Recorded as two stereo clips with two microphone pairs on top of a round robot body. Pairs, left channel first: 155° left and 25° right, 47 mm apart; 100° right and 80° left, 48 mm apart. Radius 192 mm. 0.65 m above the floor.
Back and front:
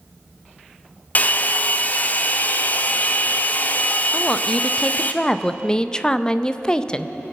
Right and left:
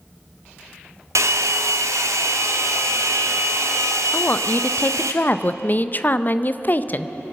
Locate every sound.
1.1 s a hair dryer: 100° left, 0.8 m
4.1 s a woman speaking: 145° right, 0.7 m